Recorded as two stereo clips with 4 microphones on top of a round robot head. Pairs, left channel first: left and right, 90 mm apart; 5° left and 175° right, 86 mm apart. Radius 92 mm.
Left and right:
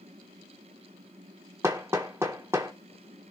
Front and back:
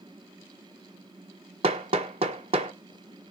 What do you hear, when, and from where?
1.6 s hammering: 160° right, 0.8 m